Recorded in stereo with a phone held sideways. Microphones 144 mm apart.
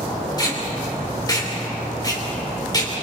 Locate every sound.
0.4 s tape being pulled: 25° left (ahead or behind), 3 m